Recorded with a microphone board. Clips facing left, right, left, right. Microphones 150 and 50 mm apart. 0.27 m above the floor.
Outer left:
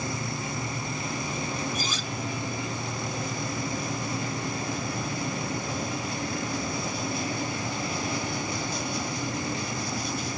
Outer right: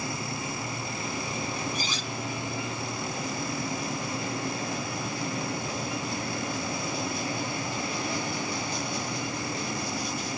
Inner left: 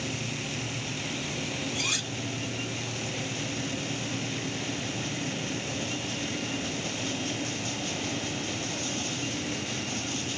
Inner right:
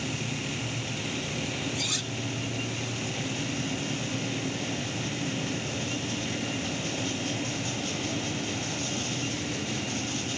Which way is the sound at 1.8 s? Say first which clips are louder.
Outer left 1 dB, inner left 1 dB; 50° left (ahead or behind).